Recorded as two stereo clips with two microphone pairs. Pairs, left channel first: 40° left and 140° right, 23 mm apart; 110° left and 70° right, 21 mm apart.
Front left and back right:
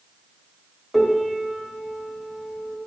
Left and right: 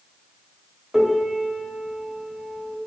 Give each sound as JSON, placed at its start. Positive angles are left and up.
{"t": 0.9, "sound": "a piano", "azimuth_deg": -40, "distance_m": 0.9}